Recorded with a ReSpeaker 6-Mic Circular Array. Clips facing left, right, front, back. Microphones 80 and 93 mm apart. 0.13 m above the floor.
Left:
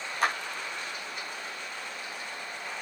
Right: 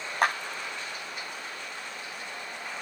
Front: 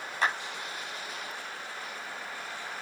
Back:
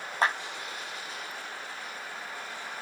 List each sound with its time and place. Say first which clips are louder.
0.2 s a clap: right 2 dB, back 2 dB; 130° right, 8 m